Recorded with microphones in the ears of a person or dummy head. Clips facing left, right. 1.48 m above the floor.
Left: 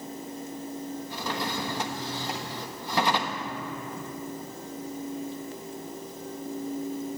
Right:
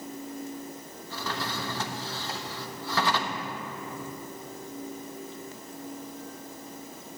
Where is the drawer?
15° left (ahead or behind), 1.2 m.